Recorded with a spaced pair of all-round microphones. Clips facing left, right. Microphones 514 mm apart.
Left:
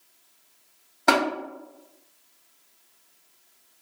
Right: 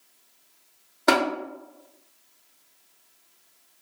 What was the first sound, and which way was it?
Tapping, 10° left (ahead or behind).